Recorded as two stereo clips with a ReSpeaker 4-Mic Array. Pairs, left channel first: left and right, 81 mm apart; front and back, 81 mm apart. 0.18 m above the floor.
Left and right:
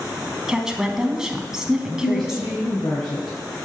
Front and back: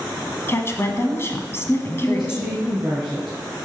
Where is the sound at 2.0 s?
95° left, 3.5 m.